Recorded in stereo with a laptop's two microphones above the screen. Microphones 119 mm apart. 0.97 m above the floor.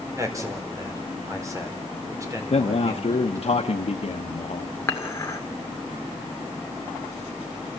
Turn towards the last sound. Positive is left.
turn(degrees=25)  # may be behind; listen again after turning